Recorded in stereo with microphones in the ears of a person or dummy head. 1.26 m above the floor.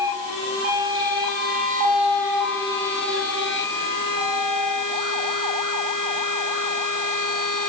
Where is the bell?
No bell in this recording.